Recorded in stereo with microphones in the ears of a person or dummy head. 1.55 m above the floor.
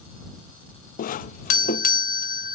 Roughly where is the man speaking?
I don't hear a man speaking.